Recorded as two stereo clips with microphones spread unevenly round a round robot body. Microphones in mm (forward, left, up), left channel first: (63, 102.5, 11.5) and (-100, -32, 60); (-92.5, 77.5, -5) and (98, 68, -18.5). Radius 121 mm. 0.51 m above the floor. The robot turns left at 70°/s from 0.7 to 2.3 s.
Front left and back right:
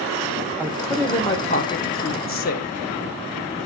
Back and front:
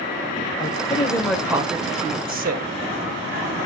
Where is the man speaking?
130° left, 2.5 m; by 2.7 s 20° left, 2.5 m.